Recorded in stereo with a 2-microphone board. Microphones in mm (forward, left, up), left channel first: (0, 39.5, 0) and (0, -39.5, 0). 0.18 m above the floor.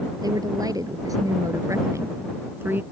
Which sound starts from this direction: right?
A woman speaking, at 0.2 s.